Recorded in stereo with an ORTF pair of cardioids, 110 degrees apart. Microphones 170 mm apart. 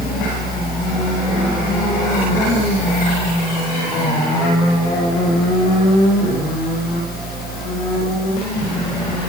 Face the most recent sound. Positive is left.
turn(degrees=70)